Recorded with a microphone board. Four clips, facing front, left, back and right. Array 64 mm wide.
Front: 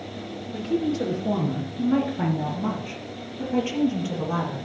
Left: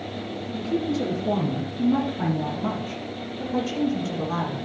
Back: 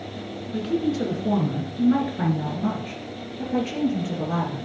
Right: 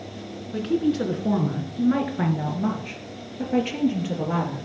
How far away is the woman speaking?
About 2.5 m.